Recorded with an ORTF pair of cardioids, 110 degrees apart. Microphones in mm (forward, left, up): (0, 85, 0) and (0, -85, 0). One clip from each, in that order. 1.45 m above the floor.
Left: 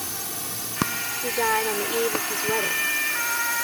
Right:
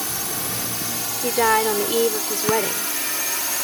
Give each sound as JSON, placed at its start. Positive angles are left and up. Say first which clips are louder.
{"t": 0.0, "sound": "a drone", "louder": "right 5 dB", "azimuth_deg": -35}
{"t": 1.2, "sound": "a woman speaking", "louder": "right 5 dB", "azimuth_deg": -40}